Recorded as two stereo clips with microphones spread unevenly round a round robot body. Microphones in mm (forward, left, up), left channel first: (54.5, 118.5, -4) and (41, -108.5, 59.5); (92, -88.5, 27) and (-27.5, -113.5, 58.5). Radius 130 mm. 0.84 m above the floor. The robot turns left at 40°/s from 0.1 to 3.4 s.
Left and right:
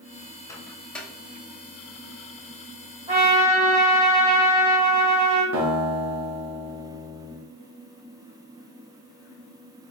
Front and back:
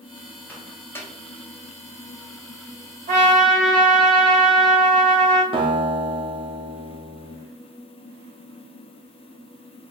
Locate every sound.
0.5 s a microwave: 50° left, 0.7 m; by 1.1 s 25° left, 0.7 m
3.1 s a trumpet: 155° right, 1.5 m; by 5.4 s 170° right, 1.5 m
5.5 s a guitar: 120° right, 1.1 m